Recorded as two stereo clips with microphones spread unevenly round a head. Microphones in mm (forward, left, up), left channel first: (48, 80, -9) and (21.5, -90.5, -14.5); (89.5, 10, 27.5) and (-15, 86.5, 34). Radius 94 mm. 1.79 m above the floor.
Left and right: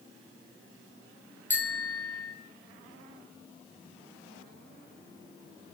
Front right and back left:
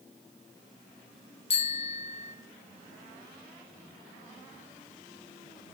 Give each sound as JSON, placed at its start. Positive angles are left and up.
{"t": 1.5, "sound": "a bicycle bell", "azimuth_deg": 5, "distance_m": 2.0}